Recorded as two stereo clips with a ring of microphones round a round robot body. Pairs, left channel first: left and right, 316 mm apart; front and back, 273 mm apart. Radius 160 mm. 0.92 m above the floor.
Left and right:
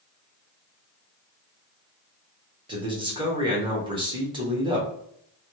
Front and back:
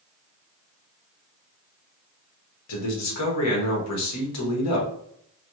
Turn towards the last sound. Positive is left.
turn(degrees=-15)